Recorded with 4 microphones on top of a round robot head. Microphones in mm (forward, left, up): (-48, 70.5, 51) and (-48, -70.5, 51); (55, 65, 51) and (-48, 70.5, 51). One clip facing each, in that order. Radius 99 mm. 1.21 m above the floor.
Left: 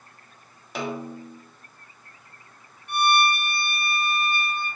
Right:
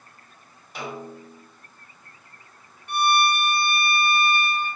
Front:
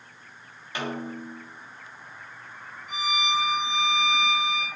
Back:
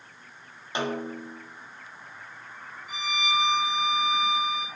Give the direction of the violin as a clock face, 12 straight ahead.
3 o'clock.